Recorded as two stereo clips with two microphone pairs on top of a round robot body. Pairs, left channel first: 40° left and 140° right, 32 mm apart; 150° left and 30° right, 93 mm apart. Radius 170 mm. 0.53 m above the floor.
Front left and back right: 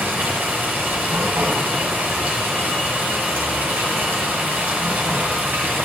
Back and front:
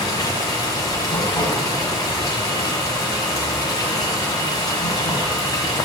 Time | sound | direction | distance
0.0 | running water | 160° right | 1.6 m